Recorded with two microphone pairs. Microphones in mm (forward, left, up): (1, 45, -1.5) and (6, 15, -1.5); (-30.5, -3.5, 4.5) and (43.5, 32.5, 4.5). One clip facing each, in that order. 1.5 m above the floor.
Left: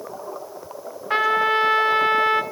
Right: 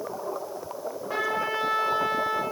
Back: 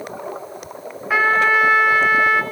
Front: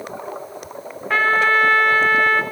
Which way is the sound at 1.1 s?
125° left.